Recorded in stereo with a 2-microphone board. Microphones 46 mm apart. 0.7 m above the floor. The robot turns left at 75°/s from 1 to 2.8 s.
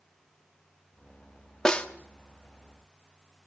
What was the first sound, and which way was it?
A snare drum, 15° left (ahead or behind).